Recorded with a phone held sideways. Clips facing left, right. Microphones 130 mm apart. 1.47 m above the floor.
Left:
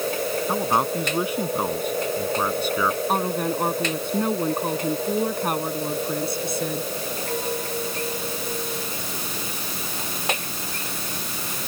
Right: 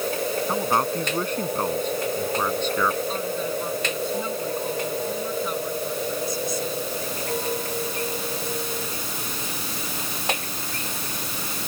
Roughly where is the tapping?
I don't hear tapping.